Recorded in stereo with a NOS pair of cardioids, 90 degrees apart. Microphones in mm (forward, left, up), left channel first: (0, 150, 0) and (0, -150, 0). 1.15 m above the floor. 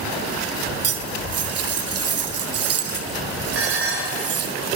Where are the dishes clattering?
45° right, 3 m.